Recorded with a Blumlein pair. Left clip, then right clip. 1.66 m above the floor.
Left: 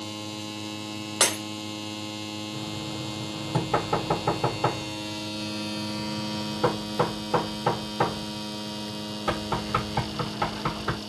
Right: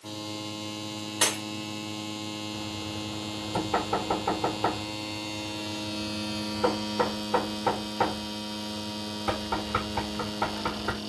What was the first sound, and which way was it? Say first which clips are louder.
Breaking glass: left 2 dB; 40° left.